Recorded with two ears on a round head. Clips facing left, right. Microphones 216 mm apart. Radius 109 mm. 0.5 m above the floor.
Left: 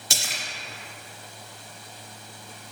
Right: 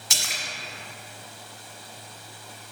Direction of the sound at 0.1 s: 30° left (ahead or behind).